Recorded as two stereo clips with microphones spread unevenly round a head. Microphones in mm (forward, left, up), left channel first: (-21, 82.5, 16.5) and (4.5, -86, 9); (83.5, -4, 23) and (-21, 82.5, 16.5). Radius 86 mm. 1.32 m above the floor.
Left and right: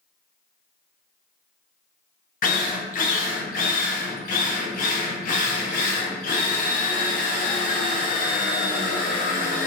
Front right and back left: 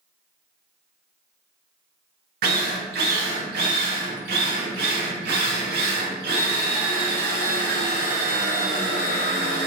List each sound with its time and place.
2.4 s a drill: 145° left, 0.5 m